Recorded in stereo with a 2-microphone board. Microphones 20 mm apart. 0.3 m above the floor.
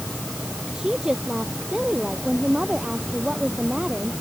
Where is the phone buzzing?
No phone buzzing in this recording.